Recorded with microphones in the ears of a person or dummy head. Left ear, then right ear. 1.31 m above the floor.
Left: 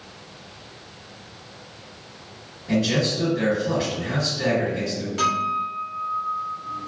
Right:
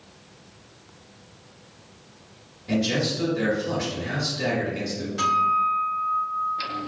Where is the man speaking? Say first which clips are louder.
Left 2 dB; 30° right (ahead or behind), 2.0 m.